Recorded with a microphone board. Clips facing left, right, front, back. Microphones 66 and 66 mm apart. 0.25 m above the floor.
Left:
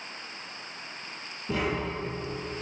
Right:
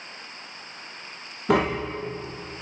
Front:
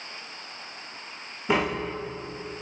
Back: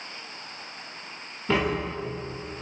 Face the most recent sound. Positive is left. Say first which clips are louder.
# right 7 dB, even
turn(degrees=-80)